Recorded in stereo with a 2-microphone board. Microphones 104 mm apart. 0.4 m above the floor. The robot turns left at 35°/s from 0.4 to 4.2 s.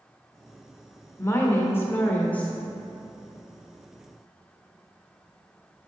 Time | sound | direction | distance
1.2 | a woman speaking | 25° left (ahead or behind) | 0.8 m